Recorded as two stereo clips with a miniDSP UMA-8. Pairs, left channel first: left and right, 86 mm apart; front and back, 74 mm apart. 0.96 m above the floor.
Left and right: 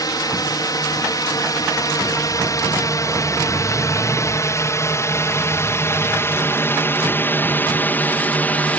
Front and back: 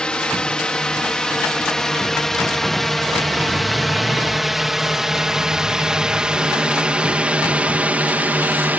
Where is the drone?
75° left; by 8.8 s 140° left.